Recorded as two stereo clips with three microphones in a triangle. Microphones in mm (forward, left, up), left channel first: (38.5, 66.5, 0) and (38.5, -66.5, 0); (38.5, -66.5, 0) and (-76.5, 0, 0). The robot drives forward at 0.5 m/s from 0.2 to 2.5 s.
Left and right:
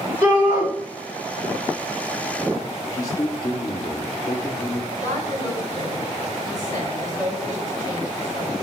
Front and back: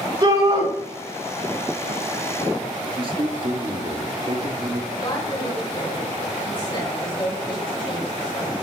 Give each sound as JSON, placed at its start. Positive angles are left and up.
{"t": 0.2, "sound": "a shout", "azimuth_deg": -155, "distance_m": 5.0}
{"t": 2.9, "sound": "a man speaking", "azimuth_deg": 135, "distance_m": 1.5}
{"t": 4.9, "sound": "a woman speaking", "azimuth_deg": -75, "distance_m": 4.5}